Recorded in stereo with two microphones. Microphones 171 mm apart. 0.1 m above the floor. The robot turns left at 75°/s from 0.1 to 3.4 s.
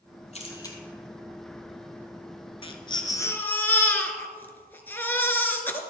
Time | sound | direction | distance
0.3 | a camera shutter | 40° left (ahead or behind) | 1.8 m
2.6 | a baby crying | 80° left | 0.9 m